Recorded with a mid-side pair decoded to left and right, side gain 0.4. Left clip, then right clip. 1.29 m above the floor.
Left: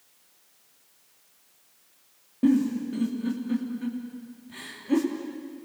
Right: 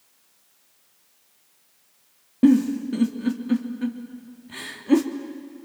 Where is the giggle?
55° right, 2.5 m.